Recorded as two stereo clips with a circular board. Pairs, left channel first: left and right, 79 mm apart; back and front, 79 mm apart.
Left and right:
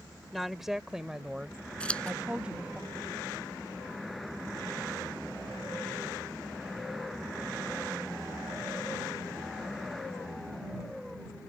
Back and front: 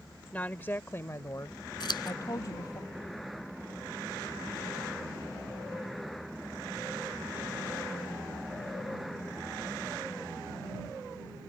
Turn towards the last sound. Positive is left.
turn(degrees=165)